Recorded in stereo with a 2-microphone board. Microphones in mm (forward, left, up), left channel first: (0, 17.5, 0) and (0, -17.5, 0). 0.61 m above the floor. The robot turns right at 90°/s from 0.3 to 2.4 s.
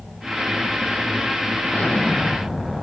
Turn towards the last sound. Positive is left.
turn(degrees=-175)